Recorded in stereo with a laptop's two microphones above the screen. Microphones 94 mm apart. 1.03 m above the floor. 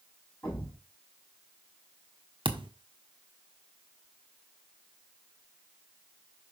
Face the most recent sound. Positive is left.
turn(degrees=-60)  # may be behind; listen again after turning